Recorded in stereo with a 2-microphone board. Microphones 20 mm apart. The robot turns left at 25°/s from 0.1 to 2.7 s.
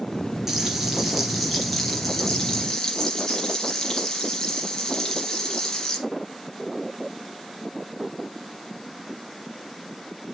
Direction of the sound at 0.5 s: 160° right.